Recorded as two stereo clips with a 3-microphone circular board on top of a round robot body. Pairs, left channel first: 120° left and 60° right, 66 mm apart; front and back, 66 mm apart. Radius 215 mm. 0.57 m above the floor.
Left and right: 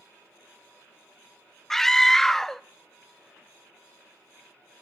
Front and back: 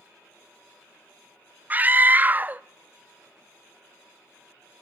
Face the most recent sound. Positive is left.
turn(degrees=-165)